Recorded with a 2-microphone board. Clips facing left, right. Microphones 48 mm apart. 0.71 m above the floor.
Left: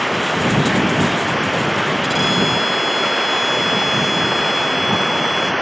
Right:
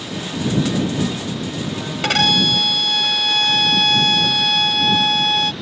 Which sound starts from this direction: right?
A violin, at 2.0 s.